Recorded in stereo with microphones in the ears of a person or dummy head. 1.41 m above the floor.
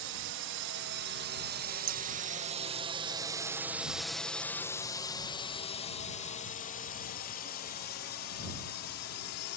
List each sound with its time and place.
0.0 s a drone: 60° right (ahead or behind); by 9.6 s 60° left (ahead or behind)
1.9 s scissors: 75° right (ahead or behind)